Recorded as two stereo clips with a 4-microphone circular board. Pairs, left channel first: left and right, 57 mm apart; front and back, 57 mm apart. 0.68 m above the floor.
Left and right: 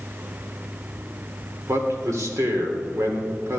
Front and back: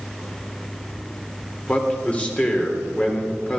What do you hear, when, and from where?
1.7 s a man speaking: 65° right, 1.7 m